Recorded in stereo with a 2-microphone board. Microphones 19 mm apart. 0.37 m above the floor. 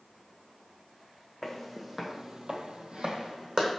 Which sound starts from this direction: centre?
Footsteps, at 1.4 s.